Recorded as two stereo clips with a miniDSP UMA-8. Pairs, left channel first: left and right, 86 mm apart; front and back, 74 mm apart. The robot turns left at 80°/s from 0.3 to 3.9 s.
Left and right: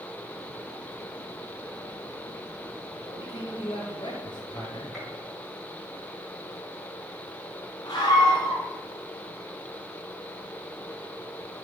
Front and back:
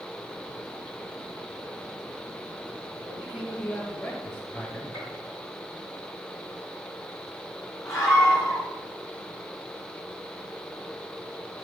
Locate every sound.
3.0 s a man speaking: 130° left, 4.5 m; by 4.8 s 60° left, 4.5 m
4.9 s a gunshot: straight ahead, 4 m
7.8 s a scream: 50° left, 4.5 m